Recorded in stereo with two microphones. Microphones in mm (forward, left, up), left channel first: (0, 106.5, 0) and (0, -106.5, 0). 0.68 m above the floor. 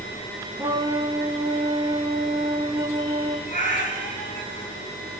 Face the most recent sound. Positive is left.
turn(degrees=35)  # may be behind; listen again after turning